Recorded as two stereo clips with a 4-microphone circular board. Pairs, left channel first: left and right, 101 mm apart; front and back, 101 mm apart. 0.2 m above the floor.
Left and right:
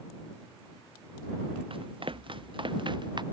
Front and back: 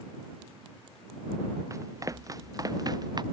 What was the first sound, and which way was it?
Running footsteps, 120° right.